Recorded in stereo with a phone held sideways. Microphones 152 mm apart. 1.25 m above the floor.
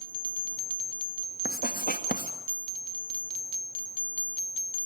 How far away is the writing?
About 2 m.